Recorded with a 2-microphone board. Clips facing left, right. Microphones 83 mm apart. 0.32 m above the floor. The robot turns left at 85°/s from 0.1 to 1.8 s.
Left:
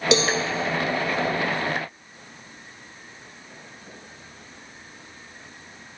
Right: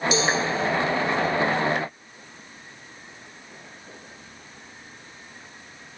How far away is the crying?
No crying in this recording.